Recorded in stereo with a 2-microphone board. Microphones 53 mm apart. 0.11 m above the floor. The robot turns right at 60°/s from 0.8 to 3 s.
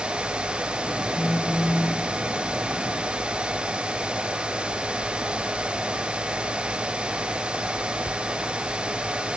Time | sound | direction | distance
1.1 | a phone buzzing | 165° right | 1.6 m